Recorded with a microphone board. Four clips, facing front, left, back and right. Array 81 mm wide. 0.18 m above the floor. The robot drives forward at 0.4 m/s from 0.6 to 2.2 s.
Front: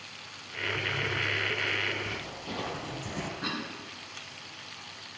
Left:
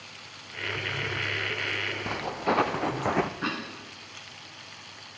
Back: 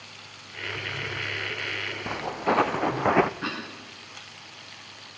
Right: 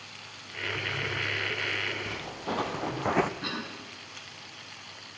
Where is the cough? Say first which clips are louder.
Left 4 dB, back 2 dB; 120° left, 2 m.